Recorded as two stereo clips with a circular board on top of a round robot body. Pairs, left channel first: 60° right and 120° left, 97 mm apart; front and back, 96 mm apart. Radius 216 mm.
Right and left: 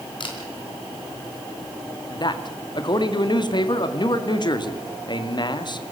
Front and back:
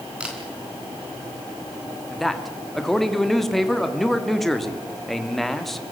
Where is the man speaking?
90° right, 2 m.